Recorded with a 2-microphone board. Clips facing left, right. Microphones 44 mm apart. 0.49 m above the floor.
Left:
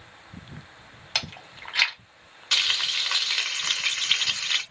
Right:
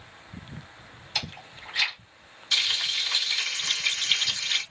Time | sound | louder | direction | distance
1.1 | chewing | left 2 dB | 60° left (ahead or behind) | 1.3 m
2.5 | frying | left 2 dB | 60° left (ahead or behind) | 1.4 m